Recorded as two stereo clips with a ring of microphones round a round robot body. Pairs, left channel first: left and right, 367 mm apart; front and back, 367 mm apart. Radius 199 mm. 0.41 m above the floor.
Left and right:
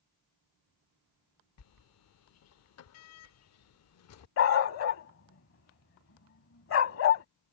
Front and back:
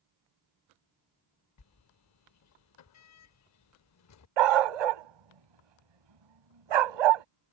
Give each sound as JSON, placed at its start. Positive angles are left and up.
{"t": 1.6, "sound": "a sliding door", "azimuth_deg": 45}
{"t": 4.4, "sound": "a dog barking", "azimuth_deg": 150}